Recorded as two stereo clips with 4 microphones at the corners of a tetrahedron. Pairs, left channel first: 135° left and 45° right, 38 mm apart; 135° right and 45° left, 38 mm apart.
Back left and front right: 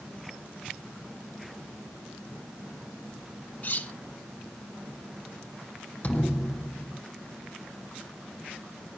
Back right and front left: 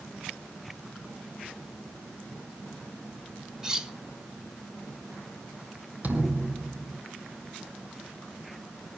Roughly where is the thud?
Left.